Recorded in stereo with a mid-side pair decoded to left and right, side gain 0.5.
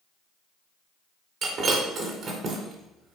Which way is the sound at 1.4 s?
55° right.